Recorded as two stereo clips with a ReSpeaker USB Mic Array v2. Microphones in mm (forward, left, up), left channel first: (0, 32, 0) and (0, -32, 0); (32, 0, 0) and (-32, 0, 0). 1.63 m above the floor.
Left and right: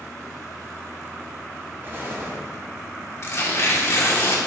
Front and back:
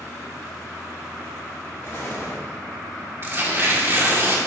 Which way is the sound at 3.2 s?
130° left.